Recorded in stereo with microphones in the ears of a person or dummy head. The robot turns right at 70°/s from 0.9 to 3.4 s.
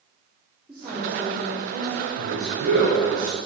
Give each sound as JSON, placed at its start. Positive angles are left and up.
{"t": 0.7, "sound": "a woman speaking", "azimuth_deg": -175, "distance_m": 3.5}
{"t": 2.2, "sound": "a man speaking", "azimuth_deg": -100, "distance_m": 5.0}